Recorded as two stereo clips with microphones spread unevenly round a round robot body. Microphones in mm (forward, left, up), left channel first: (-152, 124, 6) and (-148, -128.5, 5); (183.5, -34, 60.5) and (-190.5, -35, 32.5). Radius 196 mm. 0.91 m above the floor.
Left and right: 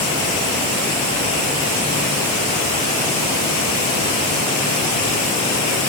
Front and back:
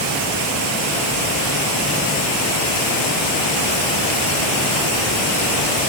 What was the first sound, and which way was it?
Only background noise.